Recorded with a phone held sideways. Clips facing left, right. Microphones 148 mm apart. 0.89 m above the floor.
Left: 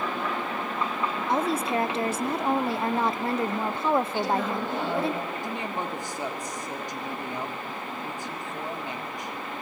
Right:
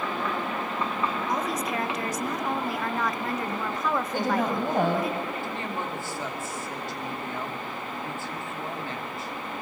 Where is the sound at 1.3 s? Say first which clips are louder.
Left 3 dB; 30° left (ahead or behind), 0.6 m.